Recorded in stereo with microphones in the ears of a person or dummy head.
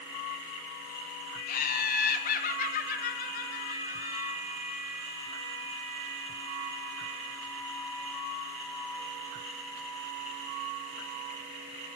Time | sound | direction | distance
1.5 | laughter | 50° left (ahead or behind) | 1.7 m